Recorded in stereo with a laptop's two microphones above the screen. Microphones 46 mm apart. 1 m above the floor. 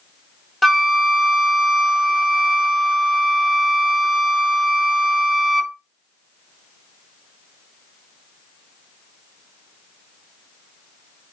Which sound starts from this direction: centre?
A flute, at 0.6 s.